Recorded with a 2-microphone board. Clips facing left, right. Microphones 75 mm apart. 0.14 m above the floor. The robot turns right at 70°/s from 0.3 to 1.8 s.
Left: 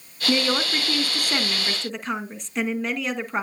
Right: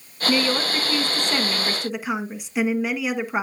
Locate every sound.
0.3 s a woman speaking: 20° left (ahead or behind), 1.1 m; by 3.4 s 5° right (ahead or behind), 1.1 m